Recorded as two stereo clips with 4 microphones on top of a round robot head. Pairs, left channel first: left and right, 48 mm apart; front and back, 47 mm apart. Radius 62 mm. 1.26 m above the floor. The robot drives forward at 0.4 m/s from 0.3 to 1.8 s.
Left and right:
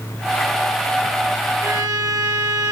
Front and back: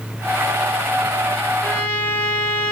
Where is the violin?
70° right, 3.5 m.